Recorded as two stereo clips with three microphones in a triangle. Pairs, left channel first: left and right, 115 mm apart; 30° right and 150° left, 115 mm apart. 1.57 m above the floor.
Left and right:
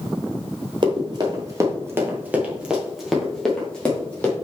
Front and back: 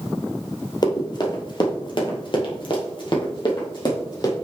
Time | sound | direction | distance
0.8 | running footsteps | 65° right | 2.5 m